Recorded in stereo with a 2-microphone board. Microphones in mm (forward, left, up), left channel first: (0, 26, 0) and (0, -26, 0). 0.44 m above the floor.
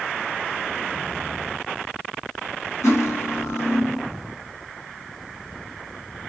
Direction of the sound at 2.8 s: 70° left (ahead or behind).